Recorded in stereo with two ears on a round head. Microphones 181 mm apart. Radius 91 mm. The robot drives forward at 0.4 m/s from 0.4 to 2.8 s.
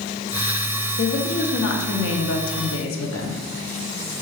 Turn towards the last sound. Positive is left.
turn(degrees=70)  # may be behind; listen again after turning